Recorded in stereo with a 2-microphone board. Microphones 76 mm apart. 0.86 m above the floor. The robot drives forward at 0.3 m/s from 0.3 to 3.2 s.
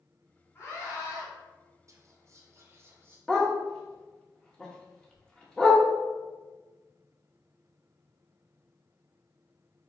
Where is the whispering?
45° right (ahead or behind), 0.6 m; by 3.2 s 30° right (ahead or behind), 0.7 m.